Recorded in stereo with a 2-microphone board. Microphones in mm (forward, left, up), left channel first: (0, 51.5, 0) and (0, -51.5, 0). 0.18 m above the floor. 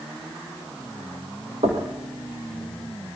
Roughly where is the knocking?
Right.